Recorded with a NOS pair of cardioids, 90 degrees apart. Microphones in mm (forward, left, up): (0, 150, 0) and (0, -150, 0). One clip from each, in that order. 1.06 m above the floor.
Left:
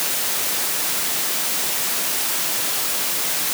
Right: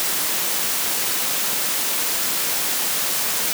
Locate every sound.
Only background noise.